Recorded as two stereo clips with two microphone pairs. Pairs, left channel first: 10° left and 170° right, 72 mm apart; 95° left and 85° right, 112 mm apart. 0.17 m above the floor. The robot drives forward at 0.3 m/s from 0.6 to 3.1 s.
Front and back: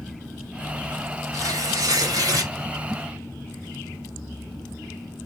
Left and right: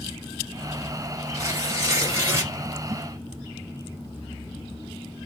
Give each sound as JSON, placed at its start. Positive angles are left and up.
{"t": 1.3, "sound": "tearing paper", "azimuth_deg": -140, "distance_m": 1.9}